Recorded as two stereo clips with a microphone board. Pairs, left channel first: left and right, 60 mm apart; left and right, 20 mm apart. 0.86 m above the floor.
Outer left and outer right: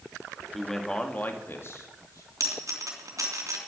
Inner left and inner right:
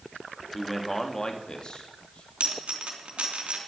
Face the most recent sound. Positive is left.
turn(degrees=-65)  # may be behind; listen again after turning